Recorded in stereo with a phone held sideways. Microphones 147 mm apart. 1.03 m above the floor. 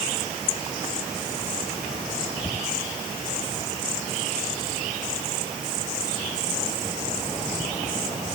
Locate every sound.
Only background noise.